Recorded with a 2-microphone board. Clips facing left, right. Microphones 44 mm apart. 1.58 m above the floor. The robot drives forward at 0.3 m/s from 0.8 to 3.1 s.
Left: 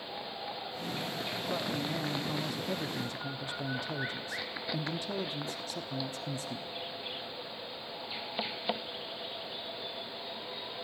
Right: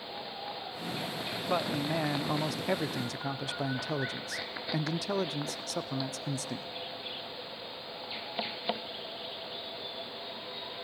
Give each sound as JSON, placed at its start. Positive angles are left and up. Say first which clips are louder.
{"t": 1.5, "sound": "a man speaking", "louder": "right 5 dB", "side_deg": -50, "distance_m": 0.7}